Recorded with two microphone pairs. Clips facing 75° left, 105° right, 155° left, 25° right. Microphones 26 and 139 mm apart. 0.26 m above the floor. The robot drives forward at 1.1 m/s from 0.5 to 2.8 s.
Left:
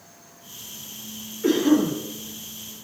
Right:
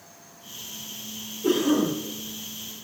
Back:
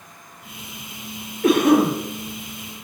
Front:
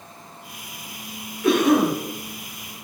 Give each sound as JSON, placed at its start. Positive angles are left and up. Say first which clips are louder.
{"t": 1.4, "sound": "a cough", "louder": "left 3 dB, back 2 dB", "azimuth_deg": 115, "distance_m": 5.0}